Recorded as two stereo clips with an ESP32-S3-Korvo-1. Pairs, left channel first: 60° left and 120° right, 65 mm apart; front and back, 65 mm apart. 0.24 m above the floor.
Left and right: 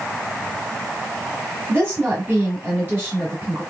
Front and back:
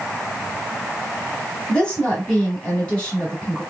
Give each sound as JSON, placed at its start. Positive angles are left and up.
{"t": 1.7, "sound": "a woman speaking", "azimuth_deg": -75, "distance_m": 2.0}